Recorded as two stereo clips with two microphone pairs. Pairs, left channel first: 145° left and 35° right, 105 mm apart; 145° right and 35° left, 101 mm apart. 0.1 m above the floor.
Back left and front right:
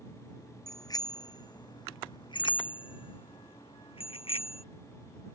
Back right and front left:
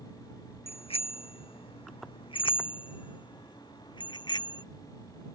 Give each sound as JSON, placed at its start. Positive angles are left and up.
{"t": 0.7, "sound": "a bicycle bell", "azimuth_deg": -160}